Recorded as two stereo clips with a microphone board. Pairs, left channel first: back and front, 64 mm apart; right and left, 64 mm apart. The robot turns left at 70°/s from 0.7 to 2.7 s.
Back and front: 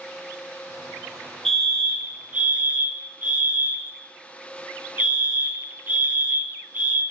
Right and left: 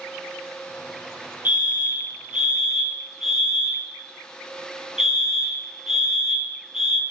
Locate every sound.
1.4 s a fire alarm: 105° left, 1.5 m; by 7.0 s 15° left, 1.5 m